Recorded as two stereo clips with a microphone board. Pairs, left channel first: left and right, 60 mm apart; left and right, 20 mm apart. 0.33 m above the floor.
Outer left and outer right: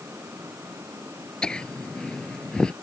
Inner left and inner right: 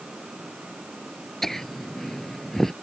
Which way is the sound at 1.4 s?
15° left (ahead or behind).